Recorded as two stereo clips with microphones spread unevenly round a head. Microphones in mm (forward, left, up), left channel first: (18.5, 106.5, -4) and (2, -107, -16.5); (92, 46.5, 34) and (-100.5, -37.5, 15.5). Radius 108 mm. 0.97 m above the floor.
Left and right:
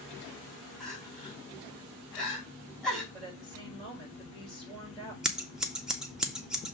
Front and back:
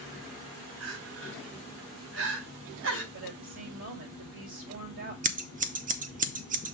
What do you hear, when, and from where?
0.8 s crying: 170° left, 3.5 m
3.1 s a woman speaking: 170° left, 5 m
5.2 s scissors: 175° right, 1.0 m